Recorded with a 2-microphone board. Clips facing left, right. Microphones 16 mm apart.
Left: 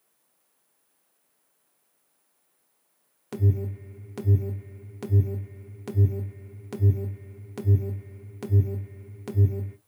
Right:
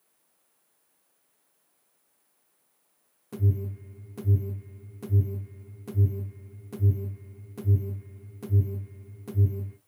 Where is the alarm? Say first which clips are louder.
Left 3 dB; 60° left (ahead or behind), 1.3 m.